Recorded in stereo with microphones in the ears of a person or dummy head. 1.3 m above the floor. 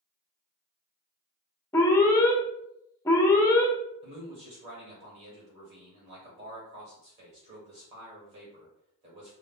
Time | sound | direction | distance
1.7 | an alarm | 20° left (ahead or behind) | 0.7 m
4.0 | a man speaking | 40° right (ahead or behind) | 1.1 m